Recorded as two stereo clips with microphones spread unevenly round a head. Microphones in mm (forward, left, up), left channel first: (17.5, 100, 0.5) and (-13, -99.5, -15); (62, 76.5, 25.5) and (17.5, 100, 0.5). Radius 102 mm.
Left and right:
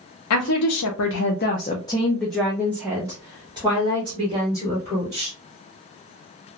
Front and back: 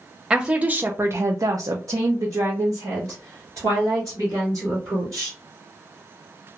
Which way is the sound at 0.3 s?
70° left.